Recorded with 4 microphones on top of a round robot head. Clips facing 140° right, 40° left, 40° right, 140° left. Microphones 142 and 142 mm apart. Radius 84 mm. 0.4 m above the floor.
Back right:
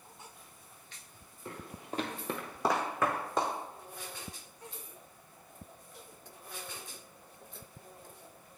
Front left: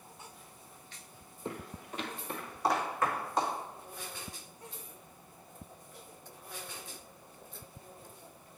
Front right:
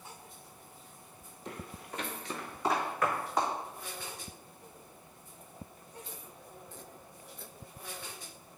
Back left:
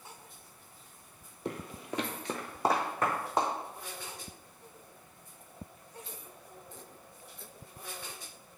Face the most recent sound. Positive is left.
turn(degrees=-150)